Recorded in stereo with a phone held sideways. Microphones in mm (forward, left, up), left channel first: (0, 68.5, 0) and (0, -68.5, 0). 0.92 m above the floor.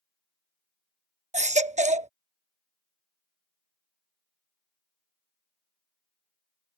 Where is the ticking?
No ticking in this recording.